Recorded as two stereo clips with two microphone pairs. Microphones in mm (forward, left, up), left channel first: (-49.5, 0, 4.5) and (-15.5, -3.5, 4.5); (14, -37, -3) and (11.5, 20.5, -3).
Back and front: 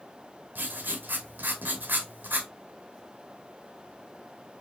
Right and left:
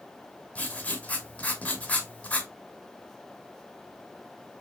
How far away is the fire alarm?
No fire alarm in this recording.